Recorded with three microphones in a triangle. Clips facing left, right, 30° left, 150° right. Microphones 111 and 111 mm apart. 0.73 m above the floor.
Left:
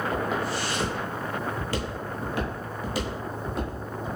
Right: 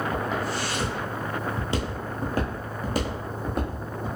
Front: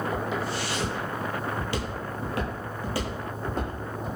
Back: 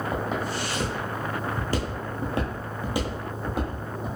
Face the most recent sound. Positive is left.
turn(degrees=-60)